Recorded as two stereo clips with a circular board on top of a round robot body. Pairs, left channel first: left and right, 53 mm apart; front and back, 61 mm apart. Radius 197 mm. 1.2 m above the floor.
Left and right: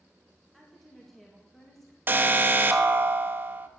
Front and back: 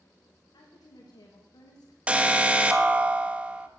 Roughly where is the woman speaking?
Ahead.